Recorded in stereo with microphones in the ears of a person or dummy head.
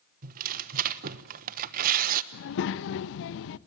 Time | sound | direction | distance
0.2 | tearing paper | 50° right (ahead or behind) | 1.0 m
2.3 | a child speaking | 60° left (ahead or behind) | 0.9 m